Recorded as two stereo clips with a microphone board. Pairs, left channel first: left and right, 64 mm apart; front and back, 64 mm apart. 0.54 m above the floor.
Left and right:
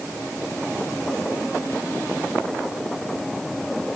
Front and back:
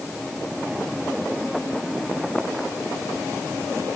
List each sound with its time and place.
Only background noise.